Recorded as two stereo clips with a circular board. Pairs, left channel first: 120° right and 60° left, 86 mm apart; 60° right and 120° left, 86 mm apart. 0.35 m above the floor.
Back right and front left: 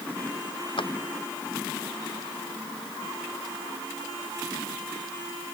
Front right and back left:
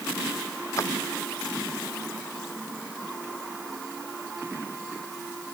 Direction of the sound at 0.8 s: 115° right.